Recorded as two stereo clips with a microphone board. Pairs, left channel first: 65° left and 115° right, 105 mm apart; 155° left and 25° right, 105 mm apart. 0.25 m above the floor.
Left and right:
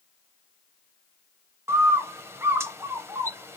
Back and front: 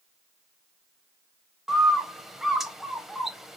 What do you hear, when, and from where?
1.7 s a bird: 105° right, 0.6 m